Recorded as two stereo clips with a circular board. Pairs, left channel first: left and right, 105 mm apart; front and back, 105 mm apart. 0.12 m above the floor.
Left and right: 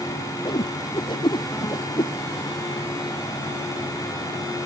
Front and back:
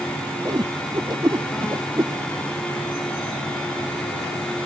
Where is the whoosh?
130° left.